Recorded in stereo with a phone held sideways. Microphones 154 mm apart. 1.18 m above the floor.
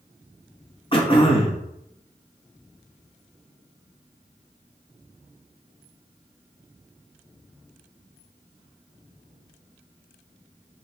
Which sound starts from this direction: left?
Throat clearing, at 0.9 s.